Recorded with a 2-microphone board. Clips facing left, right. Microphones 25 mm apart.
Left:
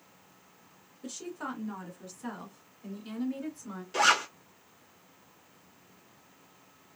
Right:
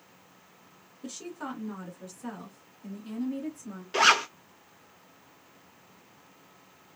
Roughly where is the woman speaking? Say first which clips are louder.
Even; centre.